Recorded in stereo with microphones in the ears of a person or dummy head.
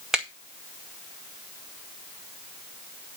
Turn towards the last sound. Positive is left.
turn(degrees=0)  # may be behind; listen again after turning